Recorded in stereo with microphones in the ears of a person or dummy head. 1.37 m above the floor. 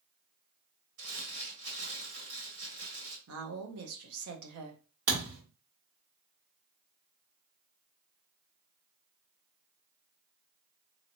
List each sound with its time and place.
1.0 s crumpling: 70° right (ahead or behind), 1.9 m
3.3 s a woman speaking: 75° right (ahead or behind), 0.8 m
5.1 s a thud: 60° right (ahead or behind), 1.9 m